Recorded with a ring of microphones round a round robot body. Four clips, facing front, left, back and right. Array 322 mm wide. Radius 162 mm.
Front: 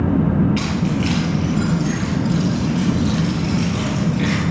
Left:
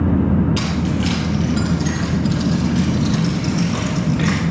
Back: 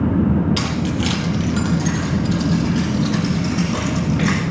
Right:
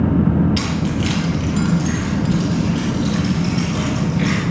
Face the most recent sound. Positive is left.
turn(degrees=160)